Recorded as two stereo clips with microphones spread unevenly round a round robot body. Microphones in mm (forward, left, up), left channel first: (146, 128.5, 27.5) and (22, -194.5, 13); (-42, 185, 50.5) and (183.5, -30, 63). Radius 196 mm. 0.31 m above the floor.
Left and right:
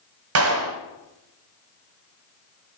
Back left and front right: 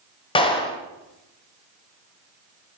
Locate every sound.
0.3 s a clap: 155° right, 1.3 m